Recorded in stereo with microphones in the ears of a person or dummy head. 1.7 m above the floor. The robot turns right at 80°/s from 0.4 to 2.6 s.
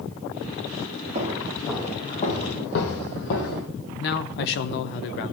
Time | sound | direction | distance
1.1 | footsteps | 45° right (ahead or behind) | 4 m
4.0 | a man speaking | 60° left (ahead or behind) | 1.1 m